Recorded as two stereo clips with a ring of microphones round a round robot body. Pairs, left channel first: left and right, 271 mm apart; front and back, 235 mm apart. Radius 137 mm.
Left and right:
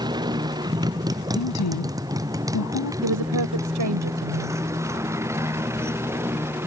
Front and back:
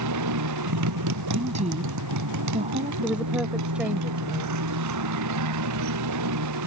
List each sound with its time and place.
0.0 s a motorcycle: 165° right; by 6.7 s 170° right
1.4 s a woman speaking: 120° left
3.0 s a woman speaking: 95° right